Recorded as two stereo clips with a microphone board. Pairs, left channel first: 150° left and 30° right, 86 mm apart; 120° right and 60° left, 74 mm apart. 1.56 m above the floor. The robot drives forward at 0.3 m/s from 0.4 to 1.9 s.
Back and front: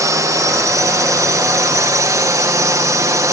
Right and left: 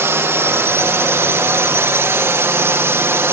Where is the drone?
10° left.